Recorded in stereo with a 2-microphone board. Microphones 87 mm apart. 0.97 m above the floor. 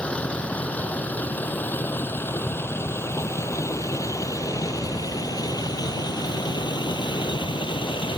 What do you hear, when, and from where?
0.0 s a vehicle: 15° left (ahead or behind); by 8.2 s 70° left (ahead or behind)